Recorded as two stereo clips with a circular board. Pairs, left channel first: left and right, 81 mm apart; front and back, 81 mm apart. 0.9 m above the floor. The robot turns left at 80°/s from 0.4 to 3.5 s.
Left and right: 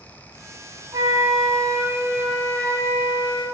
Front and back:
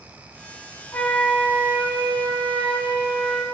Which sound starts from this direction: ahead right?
A flute, at 0.9 s.